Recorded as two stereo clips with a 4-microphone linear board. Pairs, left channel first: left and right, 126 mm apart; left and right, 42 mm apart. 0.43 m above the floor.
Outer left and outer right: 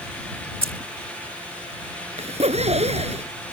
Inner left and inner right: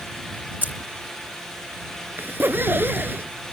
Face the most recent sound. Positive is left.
turn(degrees=-60)  # may be behind; listen again after turning